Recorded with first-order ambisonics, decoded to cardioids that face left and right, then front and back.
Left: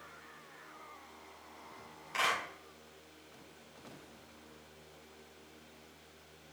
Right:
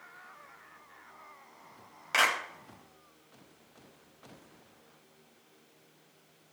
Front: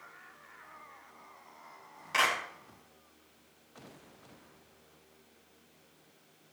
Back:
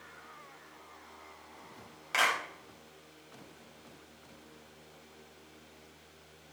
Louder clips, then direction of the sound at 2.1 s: Right 6 dB, even; 110° right.